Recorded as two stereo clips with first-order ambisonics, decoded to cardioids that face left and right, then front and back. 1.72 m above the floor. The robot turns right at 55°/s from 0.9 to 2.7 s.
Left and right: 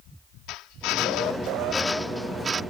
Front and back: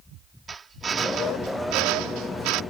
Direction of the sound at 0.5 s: 110° left.